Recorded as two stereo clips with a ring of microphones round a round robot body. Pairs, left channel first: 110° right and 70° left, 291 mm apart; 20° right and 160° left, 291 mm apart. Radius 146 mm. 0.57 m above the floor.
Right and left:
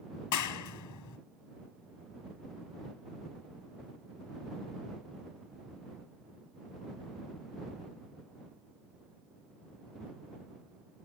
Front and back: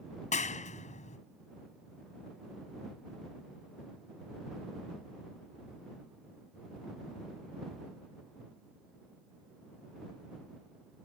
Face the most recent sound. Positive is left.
turn(degrees=-90)